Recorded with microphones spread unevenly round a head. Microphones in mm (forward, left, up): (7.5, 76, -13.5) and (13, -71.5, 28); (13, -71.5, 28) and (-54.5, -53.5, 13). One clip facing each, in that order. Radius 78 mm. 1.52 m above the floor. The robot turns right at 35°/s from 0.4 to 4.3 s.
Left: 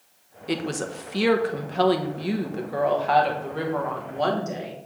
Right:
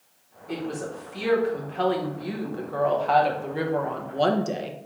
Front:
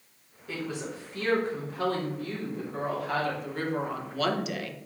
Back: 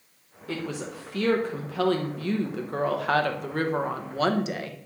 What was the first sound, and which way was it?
A woman speaking, 95° left.